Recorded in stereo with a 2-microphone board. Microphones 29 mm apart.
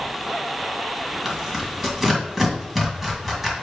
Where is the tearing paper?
5° left (ahead or behind), 2 m.